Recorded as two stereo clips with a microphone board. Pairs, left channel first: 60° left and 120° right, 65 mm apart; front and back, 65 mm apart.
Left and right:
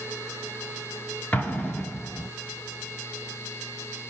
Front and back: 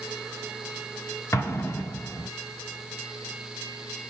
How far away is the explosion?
About 1.4 m.